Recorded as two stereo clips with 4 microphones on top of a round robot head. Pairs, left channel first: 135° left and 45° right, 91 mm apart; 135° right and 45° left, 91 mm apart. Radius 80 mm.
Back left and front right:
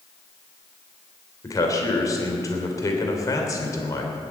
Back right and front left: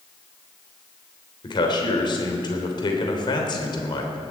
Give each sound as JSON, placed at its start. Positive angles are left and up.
{"t": 1.4, "sound": "a man speaking", "azimuth_deg": -170, "distance_m": 3.0}